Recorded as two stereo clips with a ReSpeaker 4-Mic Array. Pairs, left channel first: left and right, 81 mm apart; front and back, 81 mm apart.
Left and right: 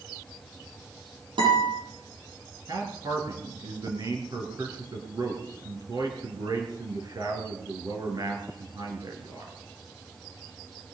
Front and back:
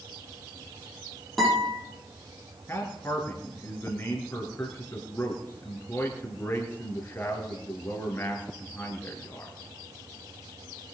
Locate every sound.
1.4 s a guitar: 90° right, 8.5 m
2.7 s a man speaking: 60° right, 3.5 m